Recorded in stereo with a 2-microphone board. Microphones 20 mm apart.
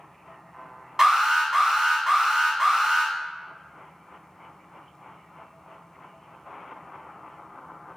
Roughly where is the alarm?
Right.